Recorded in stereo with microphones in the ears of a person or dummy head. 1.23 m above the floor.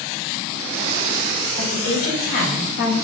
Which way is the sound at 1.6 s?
55° left (ahead or behind).